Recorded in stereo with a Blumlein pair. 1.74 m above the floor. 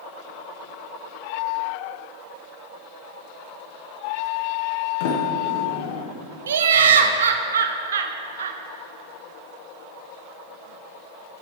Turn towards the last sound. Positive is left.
turn(degrees=-65)